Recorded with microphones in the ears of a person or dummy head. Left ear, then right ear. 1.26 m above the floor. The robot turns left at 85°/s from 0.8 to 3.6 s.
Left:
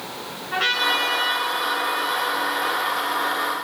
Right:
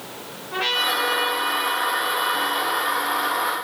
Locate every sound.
0.5 s a trumpet: 140° left, 2.5 m; by 3.0 s 40° right, 2.5 m